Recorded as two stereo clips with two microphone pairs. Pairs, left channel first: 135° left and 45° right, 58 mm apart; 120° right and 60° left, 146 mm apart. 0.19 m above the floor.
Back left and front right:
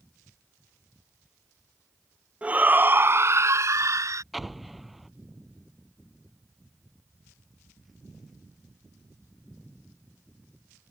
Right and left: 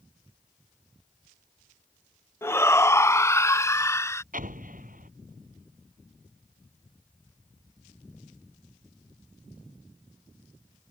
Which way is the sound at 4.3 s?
45° left.